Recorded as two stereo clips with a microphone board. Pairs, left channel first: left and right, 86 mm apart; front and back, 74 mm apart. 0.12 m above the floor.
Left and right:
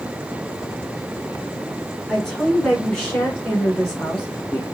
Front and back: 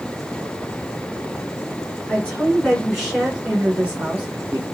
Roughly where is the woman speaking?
Ahead.